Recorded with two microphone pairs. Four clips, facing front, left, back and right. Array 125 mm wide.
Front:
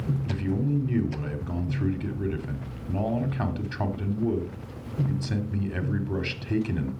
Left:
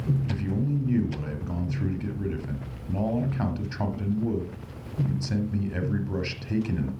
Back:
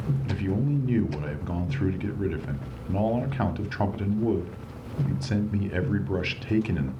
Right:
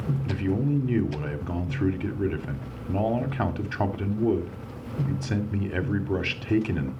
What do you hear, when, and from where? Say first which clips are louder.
0.2 s a man speaking: right 3 dB, even; 125° right, 1.0 m